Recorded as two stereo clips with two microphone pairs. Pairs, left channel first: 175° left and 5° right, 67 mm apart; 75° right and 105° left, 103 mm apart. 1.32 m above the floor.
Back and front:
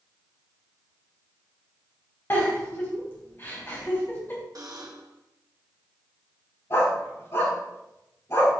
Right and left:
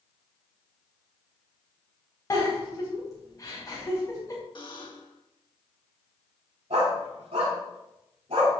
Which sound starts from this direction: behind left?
A dog barking, at 6.7 s.